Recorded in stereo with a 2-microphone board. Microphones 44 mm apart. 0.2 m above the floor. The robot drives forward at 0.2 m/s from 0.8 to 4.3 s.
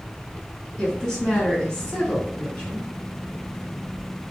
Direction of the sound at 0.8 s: 15° left (ahead or behind).